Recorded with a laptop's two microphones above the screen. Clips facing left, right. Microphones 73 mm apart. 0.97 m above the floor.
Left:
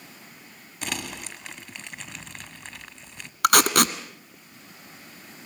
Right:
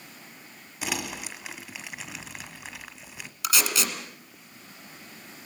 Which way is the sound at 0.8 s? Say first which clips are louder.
Right 1 dB; 5° right (ahead or behind).